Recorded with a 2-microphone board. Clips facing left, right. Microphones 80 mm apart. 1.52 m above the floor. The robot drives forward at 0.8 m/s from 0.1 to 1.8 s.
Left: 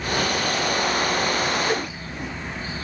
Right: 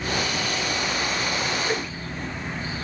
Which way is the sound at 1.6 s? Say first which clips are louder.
Left 2 dB; 10° left (ahead or behind).